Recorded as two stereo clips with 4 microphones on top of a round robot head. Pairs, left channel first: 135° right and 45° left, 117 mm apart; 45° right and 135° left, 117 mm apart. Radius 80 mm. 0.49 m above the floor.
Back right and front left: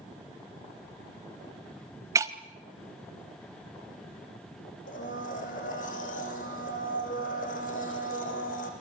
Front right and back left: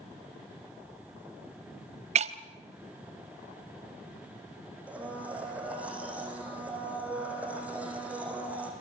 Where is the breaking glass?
110° left, 1.3 m.